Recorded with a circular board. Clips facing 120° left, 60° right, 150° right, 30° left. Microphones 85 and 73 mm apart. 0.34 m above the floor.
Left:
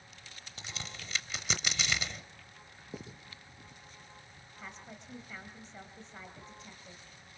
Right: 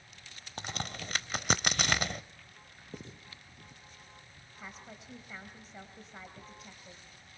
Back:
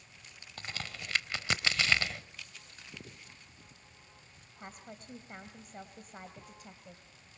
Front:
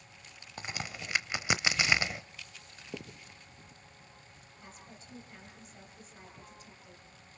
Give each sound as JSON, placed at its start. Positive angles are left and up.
{"t": 0.6, "sound": "a crack", "azimuth_deg": -40, "distance_m": 0.8}
{"t": 2.9, "sound": "writing", "azimuth_deg": 40, "distance_m": 3.0}
{"t": 4.6, "sound": "a woman speaking", "azimuth_deg": -145, "distance_m": 2.0}